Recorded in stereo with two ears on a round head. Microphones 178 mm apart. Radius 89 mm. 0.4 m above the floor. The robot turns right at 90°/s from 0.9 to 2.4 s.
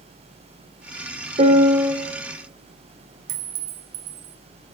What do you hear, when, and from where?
1.4 s a piano: 60° right, 1.1 m; by 1.9 s 10° right, 1.1 m
3.3 s a clink: 60° right (ahead or behind), 1.3 m